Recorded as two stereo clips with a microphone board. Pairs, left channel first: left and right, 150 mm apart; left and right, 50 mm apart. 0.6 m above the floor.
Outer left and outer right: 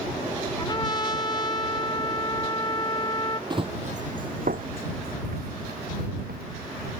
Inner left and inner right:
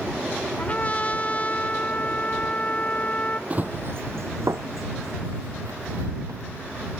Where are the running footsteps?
30° right (ahead or behind); by 6.5 s 80° right.